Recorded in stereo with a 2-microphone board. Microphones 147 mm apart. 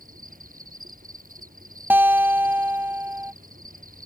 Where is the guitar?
15° right (ahead or behind).